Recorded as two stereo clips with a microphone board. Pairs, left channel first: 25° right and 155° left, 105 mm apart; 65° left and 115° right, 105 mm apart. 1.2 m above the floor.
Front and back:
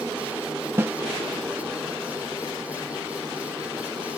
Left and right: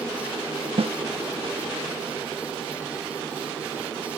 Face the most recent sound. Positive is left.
turn(degrees=-135)